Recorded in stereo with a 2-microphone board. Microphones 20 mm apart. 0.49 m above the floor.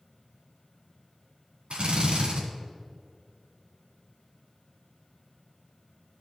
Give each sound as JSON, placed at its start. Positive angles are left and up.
{"t": 1.7, "sound": "a drill", "side_deg": -70, "distance_m": 2.5}